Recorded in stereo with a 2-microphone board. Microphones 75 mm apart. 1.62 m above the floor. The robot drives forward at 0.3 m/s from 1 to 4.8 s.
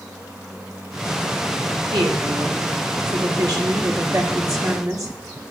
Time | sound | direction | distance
1.9 | a woman speaking | 70° right (ahead or behind) | 1.6 m